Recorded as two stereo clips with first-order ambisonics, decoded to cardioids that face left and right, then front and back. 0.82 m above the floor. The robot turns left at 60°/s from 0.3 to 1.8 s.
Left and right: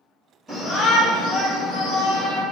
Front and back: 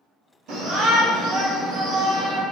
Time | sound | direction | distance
0.5 | a shout | 160° right | 1.6 m